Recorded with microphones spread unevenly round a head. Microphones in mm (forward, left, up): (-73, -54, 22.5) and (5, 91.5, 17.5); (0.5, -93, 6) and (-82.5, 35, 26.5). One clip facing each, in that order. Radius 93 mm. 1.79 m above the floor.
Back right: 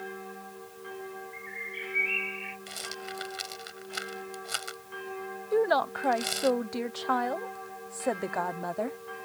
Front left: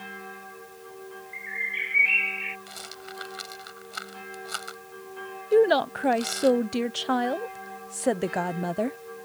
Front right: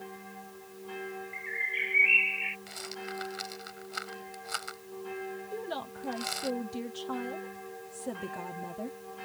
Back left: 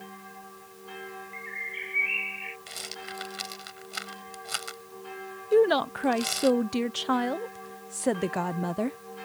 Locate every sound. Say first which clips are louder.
1.3 s a bird: even, front right 1 dB; 10° right
2.7 s a rattle: back right 2 dB, front right 3 dB; straight behind
5.5 s a woman speaking: front left 6 dB, back left 21 dB; 125° left